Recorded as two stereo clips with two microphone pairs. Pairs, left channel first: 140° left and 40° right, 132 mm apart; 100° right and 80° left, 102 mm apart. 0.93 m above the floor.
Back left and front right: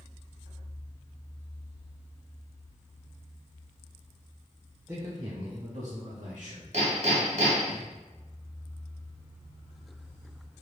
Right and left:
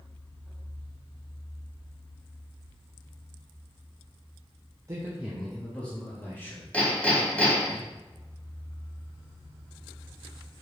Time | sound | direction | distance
4.9 | a man speaking | 30° left | 0.7 m
6.7 | hammering | 20° right | 1.5 m